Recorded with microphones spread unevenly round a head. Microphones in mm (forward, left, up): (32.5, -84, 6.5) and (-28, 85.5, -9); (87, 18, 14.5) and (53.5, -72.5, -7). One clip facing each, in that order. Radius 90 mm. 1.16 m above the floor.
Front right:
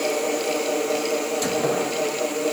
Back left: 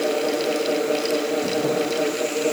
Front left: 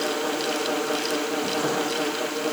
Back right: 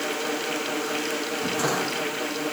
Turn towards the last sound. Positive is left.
No sound to turn to.